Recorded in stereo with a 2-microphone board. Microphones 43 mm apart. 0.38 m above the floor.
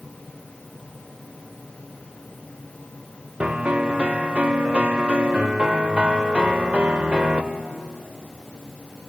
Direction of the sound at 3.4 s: 25° right (ahead or behind).